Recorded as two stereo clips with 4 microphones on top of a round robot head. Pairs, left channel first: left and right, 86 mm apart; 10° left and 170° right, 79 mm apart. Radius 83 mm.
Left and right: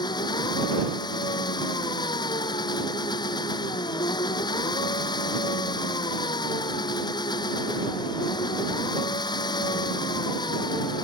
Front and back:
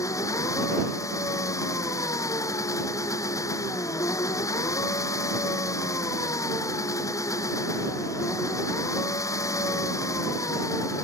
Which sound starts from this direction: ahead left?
An engine running, at 0.0 s.